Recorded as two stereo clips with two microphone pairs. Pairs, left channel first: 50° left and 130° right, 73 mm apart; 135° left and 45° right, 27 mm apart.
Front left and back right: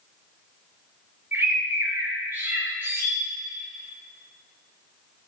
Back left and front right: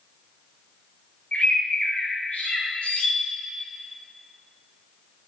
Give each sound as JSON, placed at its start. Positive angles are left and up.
{"t": 1.3, "sound": "a bird", "azimuth_deg": 170, "distance_m": 4.0}